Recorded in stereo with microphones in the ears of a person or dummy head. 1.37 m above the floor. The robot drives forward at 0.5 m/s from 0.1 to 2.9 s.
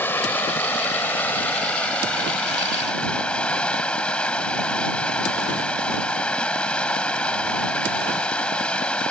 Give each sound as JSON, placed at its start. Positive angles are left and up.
{"t": 0.0, "sound": "running water", "side_deg": 20}